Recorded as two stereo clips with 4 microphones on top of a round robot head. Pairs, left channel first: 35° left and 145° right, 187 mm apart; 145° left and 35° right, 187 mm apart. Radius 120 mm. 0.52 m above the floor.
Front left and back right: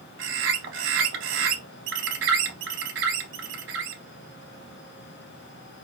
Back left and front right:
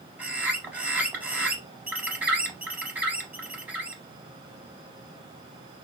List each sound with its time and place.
0.2 s a bird: 120° right, 0.6 m